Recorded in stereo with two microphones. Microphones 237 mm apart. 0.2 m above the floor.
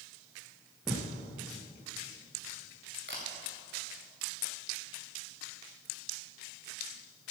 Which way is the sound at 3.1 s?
50° right (ahead or behind).